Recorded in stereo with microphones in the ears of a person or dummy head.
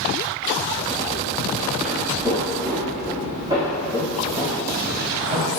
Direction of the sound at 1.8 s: 10° right (ahead or behind).